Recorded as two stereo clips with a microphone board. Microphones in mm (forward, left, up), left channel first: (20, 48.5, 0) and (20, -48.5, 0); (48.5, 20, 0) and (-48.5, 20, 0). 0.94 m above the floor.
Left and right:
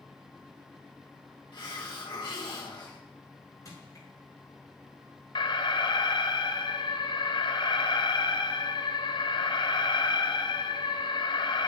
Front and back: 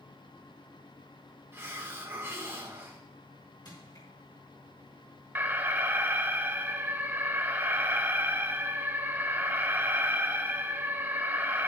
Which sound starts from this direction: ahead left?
Crushing, at 3.6 s.